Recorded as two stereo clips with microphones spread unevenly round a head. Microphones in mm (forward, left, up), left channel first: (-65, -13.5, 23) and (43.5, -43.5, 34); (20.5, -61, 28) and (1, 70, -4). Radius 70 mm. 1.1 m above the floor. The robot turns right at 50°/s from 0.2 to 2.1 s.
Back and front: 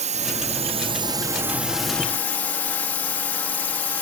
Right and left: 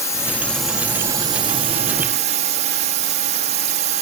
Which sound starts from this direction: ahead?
A drone, at 0.0 s.